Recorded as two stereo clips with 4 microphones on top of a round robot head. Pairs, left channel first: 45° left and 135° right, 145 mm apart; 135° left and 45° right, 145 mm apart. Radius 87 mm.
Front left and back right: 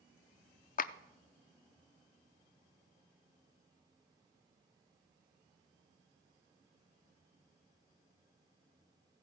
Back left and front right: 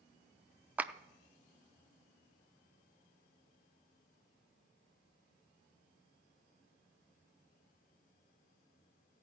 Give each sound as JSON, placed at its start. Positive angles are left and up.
{"t": 0.8, "sound": "a clap", "azimuth_deg": 35, "distance_m": 0.6}